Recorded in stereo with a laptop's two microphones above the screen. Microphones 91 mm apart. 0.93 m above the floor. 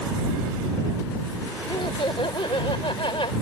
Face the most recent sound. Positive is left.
turn(degrees=70)  # may be behind; listen again after turning